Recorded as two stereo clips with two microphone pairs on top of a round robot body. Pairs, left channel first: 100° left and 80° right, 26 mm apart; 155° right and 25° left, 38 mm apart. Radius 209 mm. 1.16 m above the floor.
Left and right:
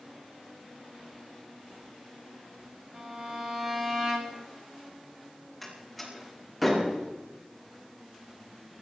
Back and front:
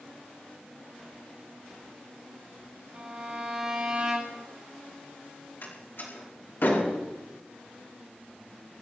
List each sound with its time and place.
2.9 s a violin: 20° right, 1.5 m
5.6 s a door slam: 165° right, 6 m